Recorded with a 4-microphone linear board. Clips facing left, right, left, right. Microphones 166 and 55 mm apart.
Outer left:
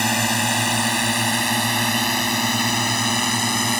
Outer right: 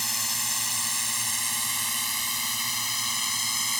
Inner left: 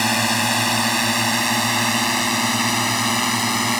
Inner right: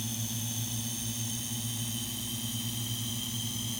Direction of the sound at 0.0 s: 70° left (ahead or behind).